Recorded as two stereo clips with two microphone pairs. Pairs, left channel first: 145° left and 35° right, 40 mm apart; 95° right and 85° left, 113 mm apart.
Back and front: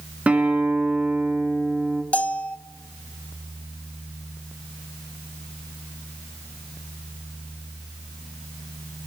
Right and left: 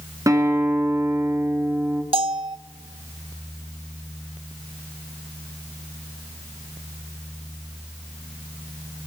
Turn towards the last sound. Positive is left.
turn(degrees=105)